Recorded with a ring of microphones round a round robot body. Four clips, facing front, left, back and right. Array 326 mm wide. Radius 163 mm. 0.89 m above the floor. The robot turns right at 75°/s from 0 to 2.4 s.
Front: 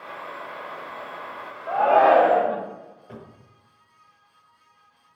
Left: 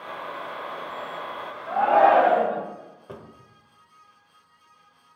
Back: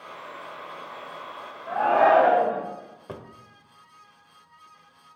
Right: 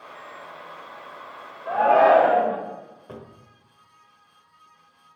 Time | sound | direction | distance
1.7 | a shout | 60° right | 3 m
3.1 | a drawer | straight behind | 0.8 m